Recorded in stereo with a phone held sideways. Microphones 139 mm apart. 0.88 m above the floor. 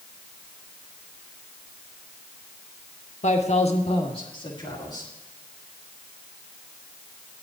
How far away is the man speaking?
About 0.9 m.